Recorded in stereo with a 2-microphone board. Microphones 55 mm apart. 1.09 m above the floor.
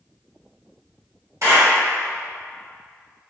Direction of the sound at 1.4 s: 65° right (ahead or behind).